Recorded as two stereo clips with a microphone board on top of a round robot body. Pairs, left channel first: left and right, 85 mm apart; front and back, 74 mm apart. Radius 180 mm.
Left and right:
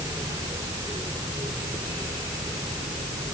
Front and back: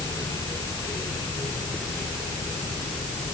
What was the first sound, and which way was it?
Only background noise.